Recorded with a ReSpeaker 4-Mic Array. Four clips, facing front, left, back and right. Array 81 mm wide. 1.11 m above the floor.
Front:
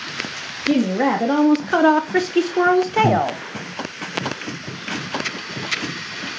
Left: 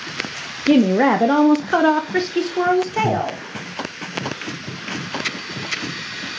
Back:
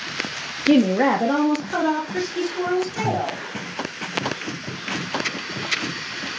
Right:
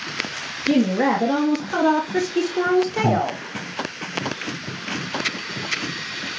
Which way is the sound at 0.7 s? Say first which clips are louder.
Left 4 dB, back 2 dB; 115° left.